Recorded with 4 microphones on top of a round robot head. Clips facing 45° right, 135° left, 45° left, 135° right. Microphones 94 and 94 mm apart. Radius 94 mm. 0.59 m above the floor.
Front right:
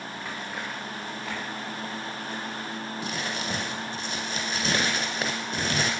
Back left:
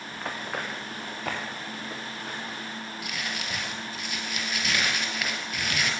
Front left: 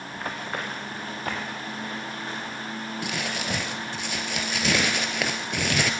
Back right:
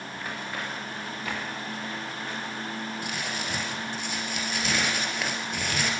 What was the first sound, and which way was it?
Running footsteps, 90° left.